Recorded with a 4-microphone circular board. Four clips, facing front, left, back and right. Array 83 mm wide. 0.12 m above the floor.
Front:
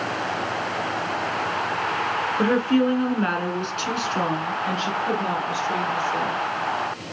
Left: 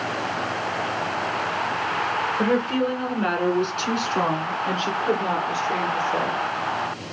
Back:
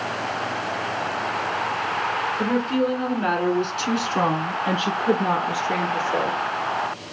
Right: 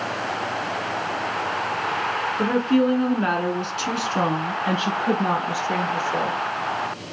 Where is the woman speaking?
5° left, 1.4 m; by 6.4 s 155° right, 1.9 m.